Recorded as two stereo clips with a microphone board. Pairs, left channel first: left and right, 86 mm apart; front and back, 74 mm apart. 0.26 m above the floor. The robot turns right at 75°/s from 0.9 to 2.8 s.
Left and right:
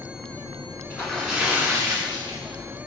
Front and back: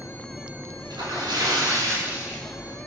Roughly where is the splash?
Behind left.